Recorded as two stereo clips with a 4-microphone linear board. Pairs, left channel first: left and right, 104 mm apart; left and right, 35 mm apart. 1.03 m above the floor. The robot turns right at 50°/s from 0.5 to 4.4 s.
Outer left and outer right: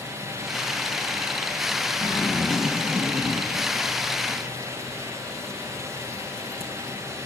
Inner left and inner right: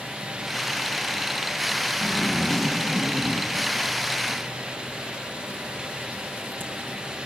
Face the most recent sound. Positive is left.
turn(degrees=-75)  # may be behind; listen again after turning